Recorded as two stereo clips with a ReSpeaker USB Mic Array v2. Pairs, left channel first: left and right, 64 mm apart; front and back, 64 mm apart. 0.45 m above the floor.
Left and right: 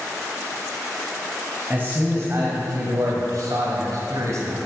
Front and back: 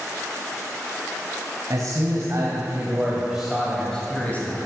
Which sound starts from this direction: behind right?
A man speaking, at 1.7 s.